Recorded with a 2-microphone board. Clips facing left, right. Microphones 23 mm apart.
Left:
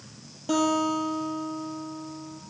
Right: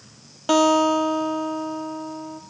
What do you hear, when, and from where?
0.5 s a guitar: 55° right (ahead or behind), 0.6 m